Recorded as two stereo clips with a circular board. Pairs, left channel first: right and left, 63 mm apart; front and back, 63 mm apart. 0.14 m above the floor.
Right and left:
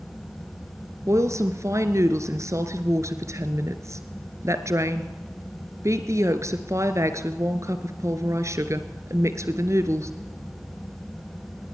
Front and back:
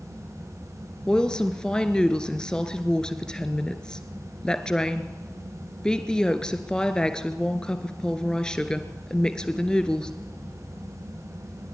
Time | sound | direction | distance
1.1 | a woman speaking | 75° left | 1.8 m